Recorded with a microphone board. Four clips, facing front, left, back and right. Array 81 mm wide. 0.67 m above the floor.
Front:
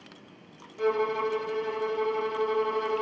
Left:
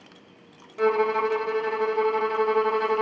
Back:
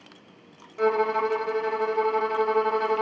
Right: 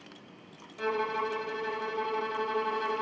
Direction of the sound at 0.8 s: 135° left.